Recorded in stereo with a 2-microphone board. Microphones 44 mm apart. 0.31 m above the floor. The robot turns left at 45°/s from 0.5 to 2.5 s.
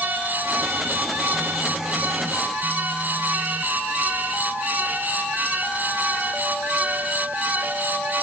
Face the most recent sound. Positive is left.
No sound to turn to.